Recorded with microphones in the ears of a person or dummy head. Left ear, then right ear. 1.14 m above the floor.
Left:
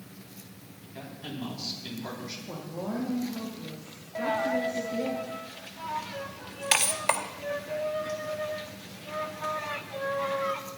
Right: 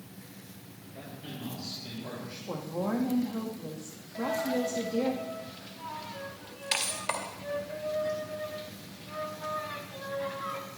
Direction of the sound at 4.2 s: 25° left (ahead or behind).